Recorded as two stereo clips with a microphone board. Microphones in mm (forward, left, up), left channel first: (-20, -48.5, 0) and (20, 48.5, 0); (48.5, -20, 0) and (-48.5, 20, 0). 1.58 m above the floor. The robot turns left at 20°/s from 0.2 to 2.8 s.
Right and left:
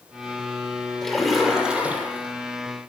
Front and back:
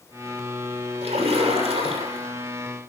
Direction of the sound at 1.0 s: 160° left.